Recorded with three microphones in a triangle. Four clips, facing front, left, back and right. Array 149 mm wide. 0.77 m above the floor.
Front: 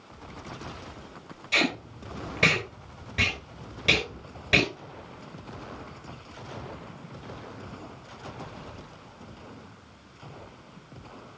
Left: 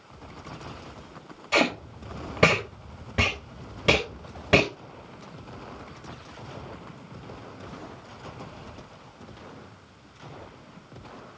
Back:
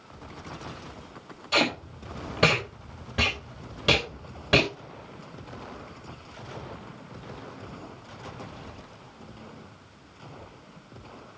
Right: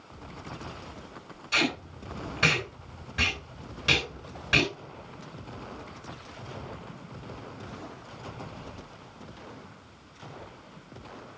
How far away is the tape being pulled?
About 4 m.